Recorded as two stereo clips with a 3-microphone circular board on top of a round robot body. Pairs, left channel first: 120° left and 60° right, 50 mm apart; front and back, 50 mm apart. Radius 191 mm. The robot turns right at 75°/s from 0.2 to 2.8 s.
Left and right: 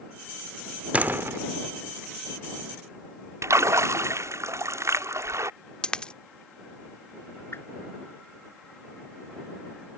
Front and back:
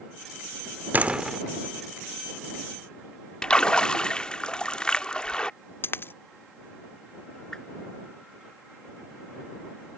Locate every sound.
0.9 s a door slam: 125° right; by 1.4 s 90° right
3.4 s a splash: 70° right
5.8 s a dropped coin: 45° left
7.5 s a whoosh: 80° left